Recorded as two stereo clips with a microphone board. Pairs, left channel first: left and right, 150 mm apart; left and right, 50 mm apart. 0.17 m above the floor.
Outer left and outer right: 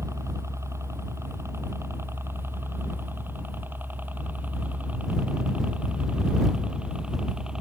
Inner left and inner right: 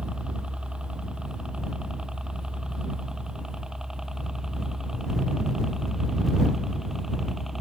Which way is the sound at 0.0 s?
20° right (ahead or behind).